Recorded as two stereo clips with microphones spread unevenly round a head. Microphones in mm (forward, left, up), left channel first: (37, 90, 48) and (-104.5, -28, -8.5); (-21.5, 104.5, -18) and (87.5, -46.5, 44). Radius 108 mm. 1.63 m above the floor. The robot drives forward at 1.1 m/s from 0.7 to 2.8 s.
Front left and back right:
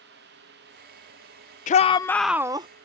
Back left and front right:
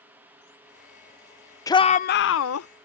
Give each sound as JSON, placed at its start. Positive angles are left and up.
{"t": 1.7, "sound": "a shout", "azimuth_deg": 40}